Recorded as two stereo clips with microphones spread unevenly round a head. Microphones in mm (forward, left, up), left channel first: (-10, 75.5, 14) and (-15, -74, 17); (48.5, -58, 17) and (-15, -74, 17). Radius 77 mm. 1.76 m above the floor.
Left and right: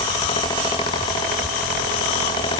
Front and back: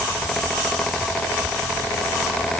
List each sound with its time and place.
Only background noise.